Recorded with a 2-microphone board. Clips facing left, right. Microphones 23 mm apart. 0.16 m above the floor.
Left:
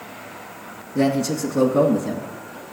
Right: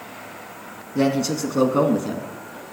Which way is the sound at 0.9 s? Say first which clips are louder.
Even; 35° right (ahead or behind).